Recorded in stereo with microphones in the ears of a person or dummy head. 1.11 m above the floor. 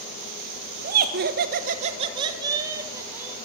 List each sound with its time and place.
0.8 s laughter: 50° right (ahead or behind), 0.8 m; by 3.4 s 10° right (ahead or behind), 1.5 m